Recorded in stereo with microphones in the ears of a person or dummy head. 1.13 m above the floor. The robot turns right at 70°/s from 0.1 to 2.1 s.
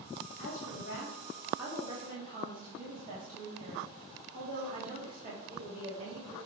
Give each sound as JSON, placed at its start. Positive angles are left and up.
{"t": 0.4, "sound": "a woman speaking", "azimuth_deg": 100, "distance_m": 2.5}